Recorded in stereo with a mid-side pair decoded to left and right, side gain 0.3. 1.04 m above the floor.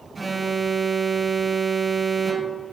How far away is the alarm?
About 1.5 m.